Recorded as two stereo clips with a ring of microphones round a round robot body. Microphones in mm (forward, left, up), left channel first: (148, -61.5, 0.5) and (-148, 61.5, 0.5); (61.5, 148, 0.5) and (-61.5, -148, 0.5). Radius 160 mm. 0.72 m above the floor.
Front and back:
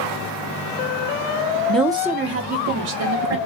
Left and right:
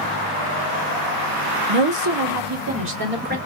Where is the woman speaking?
105° right, 1.0 m; by 3.4 s 175° right, 2 m.